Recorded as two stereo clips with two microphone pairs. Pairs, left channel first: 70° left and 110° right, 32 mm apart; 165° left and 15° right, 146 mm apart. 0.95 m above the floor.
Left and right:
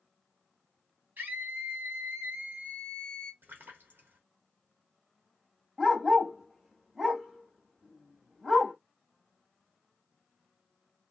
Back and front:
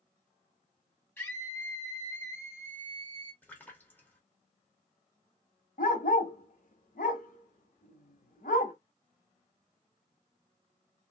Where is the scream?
120° right, 1.6 m.